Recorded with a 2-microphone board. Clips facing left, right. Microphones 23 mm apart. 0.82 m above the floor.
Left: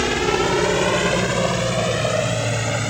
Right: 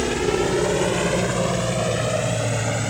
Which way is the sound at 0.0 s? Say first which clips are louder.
Left 2 dB; 30° left (ahead or behind).